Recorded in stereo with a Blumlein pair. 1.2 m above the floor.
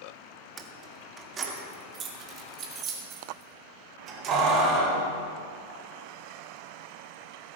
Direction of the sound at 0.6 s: 20° right.